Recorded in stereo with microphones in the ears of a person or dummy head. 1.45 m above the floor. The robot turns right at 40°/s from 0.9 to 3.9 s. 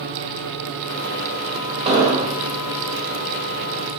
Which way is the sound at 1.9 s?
25° right (ahead or behind).